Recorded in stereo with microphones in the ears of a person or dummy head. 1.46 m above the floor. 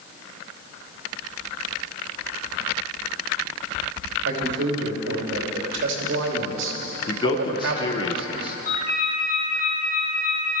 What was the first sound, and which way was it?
A man speaking, 80° right.